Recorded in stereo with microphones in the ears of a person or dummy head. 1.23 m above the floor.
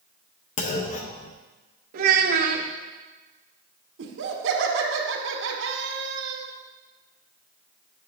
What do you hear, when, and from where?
0.6 s a clunk: 50° left (ahead or behind), 0.6 m
1.9 s a child speaking: 50° right (ahead or behind), 1.1 m
4.0 s laughter: 70° right (ahead or behind), 1.5 m